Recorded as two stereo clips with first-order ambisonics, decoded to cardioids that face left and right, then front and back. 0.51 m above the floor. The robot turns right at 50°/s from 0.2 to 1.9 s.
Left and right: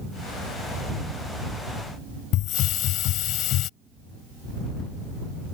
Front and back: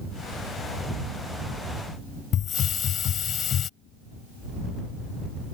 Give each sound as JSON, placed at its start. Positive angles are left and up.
{"t": 2.3, "sound": "a hiss", "azimuth_deg": 55}